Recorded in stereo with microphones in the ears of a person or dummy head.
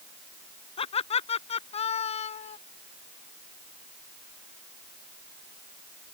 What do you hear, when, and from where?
0.8 s laughter: 40° left (ahead or behind); by 2.6 s 45° left (ahead or behind)